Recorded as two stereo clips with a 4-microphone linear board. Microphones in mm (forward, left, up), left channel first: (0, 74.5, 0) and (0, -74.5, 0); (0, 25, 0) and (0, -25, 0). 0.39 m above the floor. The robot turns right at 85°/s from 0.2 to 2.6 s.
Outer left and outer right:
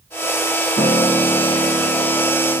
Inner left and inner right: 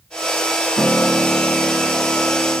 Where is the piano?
160° left, 1.9 m; by 2.6 s 45° right, 1.9 m.